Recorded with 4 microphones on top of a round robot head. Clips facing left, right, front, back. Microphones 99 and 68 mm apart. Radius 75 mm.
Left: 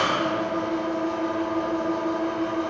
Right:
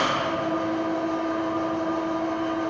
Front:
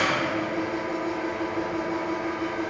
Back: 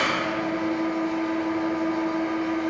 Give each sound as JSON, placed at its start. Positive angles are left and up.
{"t": 0.0, "sound": "an engine running", "azimuth_deg": 70, "distance_m": 1.2}